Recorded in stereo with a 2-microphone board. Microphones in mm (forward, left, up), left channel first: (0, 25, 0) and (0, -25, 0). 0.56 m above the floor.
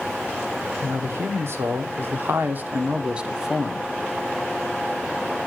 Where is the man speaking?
55° right (ahead or behind), 1.8 m; by 3.9 s centre (ahead or behind), 0.9 m.